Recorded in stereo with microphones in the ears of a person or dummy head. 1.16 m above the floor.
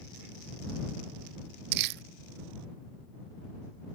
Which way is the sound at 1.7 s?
55° right (ahead or behind).